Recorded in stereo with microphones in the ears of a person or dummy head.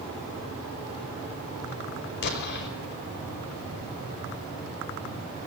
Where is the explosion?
60° left (ahead or behind), 4.5 m.